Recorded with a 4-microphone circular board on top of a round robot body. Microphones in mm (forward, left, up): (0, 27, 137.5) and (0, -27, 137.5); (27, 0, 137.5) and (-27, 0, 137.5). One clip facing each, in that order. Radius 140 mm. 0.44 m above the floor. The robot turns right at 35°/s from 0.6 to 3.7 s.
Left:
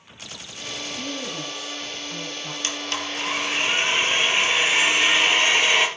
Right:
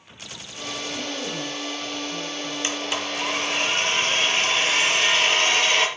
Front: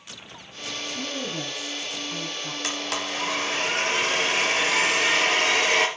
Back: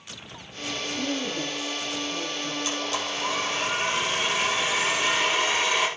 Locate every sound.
0.9 s a woman speaking: 20° right, 4.5 m; by 2.5 s 40° left, 4.5 m
2.6 s a blender: 20° right, 3 m; by 5.9 s 20° left, 3 m